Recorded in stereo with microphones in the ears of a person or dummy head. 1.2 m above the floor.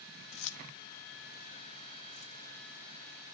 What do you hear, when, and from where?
0.3 s keys jangling: 75° left (ahead or behind), 1.3 m; by 3.4 s 50° left (ahead or behind), 4 m